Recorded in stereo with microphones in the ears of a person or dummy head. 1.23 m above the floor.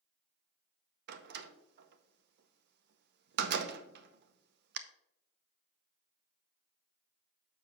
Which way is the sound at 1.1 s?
60° right (ahead or behind).